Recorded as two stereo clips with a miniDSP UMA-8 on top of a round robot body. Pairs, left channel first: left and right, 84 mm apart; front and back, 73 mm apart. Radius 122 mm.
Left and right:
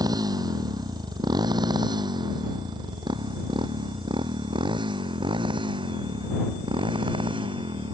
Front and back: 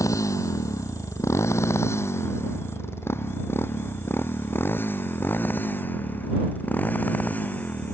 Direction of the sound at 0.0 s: 45° right.